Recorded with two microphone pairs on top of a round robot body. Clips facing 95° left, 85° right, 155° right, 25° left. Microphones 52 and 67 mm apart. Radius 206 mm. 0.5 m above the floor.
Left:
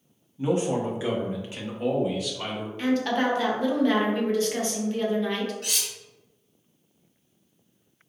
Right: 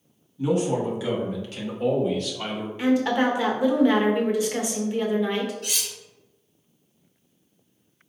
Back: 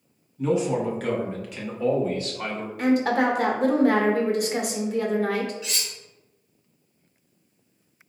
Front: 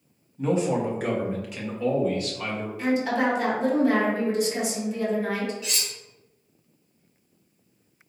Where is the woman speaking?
170° right, 1.0 m.